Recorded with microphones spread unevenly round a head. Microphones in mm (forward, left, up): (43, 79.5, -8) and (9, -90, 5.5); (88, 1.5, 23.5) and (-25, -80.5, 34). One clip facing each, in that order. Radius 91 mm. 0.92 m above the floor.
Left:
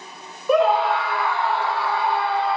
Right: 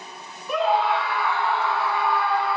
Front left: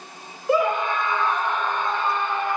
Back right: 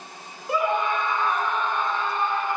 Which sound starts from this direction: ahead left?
A scream, at 0.5 s.